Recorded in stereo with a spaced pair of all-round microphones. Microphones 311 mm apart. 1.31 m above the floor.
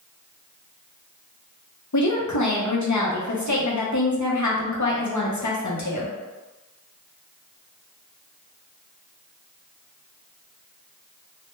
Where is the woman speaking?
65° left (ahead or behind), 0.7 m.